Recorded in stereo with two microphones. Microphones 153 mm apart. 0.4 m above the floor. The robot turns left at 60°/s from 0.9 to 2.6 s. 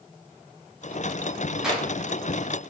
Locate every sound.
1.6 s a clap: 5° right (ahead or behind), 3 m; by 1.9 s 10° left (ahead or behind), 3 m